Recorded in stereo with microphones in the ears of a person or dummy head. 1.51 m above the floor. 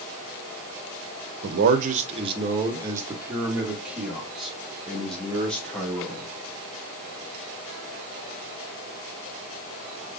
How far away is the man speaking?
About 0.8 m.